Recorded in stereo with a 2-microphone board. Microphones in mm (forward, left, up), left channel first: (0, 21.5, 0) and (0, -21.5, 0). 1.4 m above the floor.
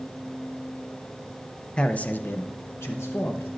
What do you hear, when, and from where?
1.8 s a man speaking: 20° left (ahead or behind), 0.7 m; by 3.5 s 75° left (ahead or behind), 1.1 m